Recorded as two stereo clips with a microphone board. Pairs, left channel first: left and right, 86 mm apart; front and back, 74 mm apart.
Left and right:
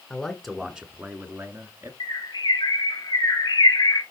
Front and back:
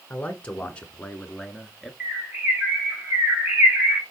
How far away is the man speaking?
About 1.3 m.